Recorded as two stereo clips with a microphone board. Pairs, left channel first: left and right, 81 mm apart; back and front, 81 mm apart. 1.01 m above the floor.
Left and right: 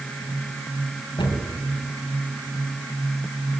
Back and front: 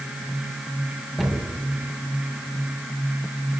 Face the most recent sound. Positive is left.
turn(degrees=90)